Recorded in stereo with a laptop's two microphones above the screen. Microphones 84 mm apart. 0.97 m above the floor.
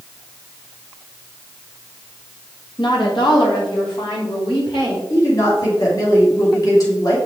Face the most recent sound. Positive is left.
turn(degrees=45)  # may be behind; listen again after turning